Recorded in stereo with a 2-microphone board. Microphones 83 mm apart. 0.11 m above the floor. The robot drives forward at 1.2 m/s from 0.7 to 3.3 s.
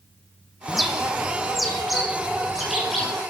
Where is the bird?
Centre (ahead or behind), 3 m.